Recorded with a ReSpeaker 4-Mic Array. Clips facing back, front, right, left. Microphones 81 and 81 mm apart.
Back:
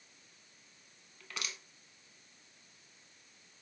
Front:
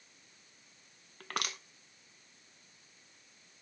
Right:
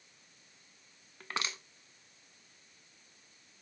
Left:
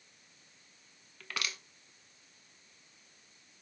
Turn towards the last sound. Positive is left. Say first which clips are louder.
# front 7 dB, right 2 dB
turn(degrees=-30)